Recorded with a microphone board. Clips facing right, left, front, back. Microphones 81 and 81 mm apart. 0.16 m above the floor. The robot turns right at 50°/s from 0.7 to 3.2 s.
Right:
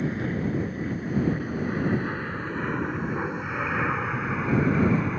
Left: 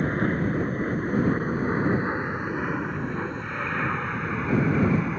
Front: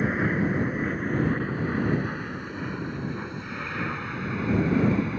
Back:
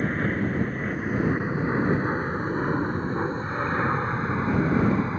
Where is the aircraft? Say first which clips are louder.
Left 3 dB, front 1 dB; 80° left; by 5.2 s straight behind.